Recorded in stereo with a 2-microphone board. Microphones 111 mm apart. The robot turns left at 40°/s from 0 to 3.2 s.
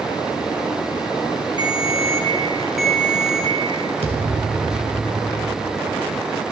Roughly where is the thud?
Right.